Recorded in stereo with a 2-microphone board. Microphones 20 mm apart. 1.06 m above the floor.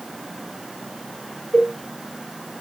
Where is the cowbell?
80° left, 4.5 m.